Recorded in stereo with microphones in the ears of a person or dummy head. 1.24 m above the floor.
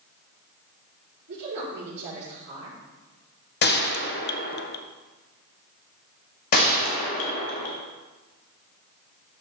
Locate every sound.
1.3 s a woman speaking: 60° right (ahead or behind), 4 m
3.6 s a gunshot: 45° left (ahead or behind), 0.5 m
6.5 s a gunshot: 50° left (ahead or behind), 1.0 m